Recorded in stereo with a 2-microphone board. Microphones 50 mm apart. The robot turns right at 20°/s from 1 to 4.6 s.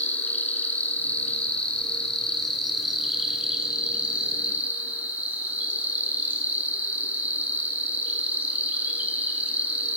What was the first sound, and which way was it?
An insect, 140° left.